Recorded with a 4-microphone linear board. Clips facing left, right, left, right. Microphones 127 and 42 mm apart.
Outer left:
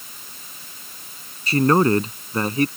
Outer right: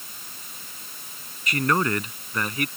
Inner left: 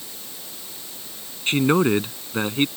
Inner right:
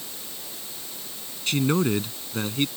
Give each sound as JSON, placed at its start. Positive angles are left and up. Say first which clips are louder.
{"t": 1.5, "sound": "a man speaking", "louder": "outer left 7 dB, inner left 5 dB", "side_deg": 30}